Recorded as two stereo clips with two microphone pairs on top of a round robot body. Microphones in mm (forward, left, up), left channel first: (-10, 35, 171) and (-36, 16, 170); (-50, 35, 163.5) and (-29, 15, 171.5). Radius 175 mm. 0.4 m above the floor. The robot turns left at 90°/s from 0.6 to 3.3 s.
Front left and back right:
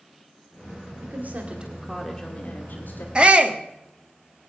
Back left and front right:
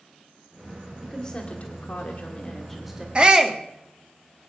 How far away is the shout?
About 1.6 m.